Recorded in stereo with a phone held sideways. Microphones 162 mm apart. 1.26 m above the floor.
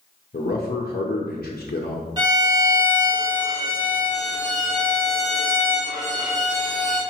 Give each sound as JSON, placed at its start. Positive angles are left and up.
{"t": 0.3, "sound": "a man speaking", "side_deg": 65, "distance_m": 0.6}
{"t": 2.2, "sound": "a violin", "side_deg": -25, "distance_m": 1.4}